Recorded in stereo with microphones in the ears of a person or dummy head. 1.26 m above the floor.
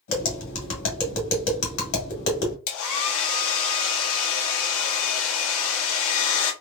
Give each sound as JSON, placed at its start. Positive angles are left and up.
{"t": 0.1, "sound": "tapping", "side_deg": 70, "distance_m": 1.6}
{"t": 2.7, "sound": "a hair dryer", "side_deg": 70, "distance_m": 0.9}